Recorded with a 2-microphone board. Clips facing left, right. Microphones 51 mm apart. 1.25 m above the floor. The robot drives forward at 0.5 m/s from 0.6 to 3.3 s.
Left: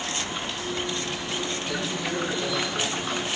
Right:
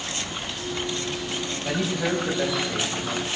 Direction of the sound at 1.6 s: 70° right (ahead or behind).